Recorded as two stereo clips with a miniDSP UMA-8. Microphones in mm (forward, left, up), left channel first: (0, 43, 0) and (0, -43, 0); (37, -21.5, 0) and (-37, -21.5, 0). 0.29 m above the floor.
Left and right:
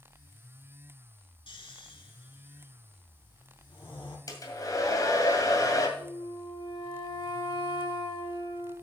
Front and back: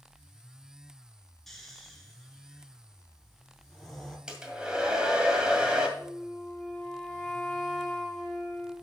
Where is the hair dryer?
105° left, 2 m.